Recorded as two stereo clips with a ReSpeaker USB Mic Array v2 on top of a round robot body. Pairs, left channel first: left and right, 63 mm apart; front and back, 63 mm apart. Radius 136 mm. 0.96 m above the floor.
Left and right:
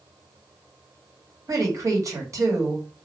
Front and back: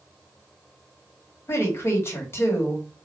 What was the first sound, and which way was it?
A woman speaking, 50° right.